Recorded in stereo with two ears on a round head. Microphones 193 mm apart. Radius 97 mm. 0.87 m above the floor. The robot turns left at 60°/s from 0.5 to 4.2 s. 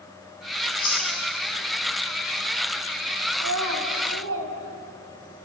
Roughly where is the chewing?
Left.